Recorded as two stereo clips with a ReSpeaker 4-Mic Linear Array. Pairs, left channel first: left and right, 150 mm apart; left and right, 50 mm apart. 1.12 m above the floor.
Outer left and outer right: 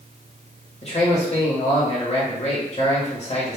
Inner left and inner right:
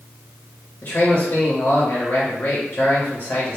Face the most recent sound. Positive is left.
turn(degrees=45)  # may be behind; listen again after turning